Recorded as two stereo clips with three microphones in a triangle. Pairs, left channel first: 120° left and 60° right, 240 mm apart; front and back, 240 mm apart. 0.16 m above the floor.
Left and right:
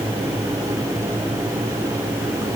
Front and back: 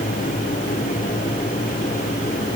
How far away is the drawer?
I don't hear a drawer.